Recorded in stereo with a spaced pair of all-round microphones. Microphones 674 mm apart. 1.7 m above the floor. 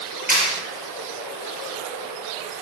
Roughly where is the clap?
Centre.